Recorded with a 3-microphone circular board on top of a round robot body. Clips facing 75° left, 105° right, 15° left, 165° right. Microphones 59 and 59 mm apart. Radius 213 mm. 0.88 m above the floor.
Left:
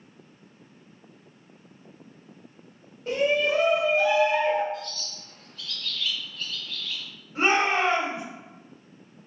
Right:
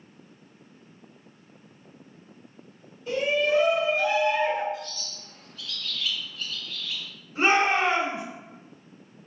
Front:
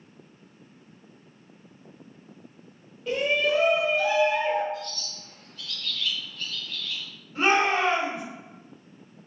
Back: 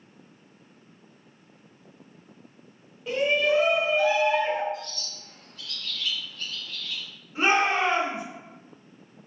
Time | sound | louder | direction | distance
3.1 | a shout | left 1 dB, back 1 dB | 110° left | 1.2 m
4.7 | a bird | left 1 dB, front 1 dB | 125° right | 0.7 m
7.3 | a shout | right 1 dB, even | 115° left | 2.0 m